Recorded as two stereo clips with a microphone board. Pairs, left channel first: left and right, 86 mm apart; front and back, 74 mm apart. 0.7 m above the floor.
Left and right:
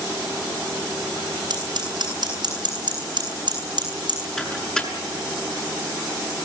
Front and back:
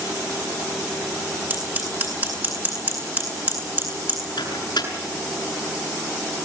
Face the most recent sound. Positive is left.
turn(degrees=10)